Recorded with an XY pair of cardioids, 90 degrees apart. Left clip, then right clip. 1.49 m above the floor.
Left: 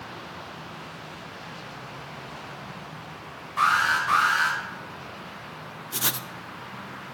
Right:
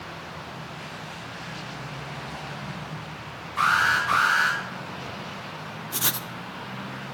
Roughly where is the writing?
Ahead.